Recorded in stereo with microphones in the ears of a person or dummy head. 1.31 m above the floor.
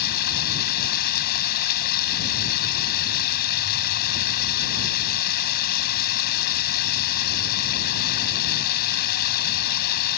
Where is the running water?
60° left (ahead or behind).